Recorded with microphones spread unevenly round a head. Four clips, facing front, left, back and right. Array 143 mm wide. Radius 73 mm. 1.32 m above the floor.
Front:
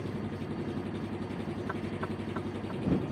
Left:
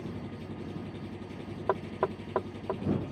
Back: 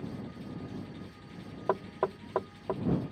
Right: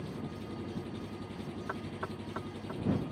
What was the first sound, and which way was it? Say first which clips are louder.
An engine running: left 1 dB, front 5 dB; 5° left.